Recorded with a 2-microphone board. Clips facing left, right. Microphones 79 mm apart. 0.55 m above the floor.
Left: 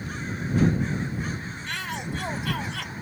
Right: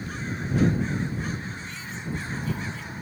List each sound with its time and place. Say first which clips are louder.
1.7 s a shout: left 3 dB; 70° left (ahead or behind); by 2.9 s 75° left (ahead or behind)